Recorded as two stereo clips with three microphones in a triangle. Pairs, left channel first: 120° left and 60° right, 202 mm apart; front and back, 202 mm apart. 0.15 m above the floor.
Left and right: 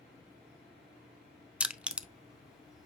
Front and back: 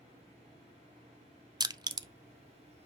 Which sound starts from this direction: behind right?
Crushing, at 1.6 s.